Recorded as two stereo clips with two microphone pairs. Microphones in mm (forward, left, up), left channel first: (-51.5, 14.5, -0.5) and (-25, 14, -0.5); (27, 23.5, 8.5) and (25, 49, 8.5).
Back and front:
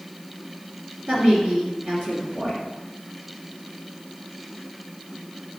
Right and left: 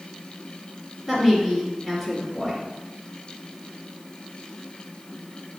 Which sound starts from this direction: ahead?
A woman speaking, at 1.1 s.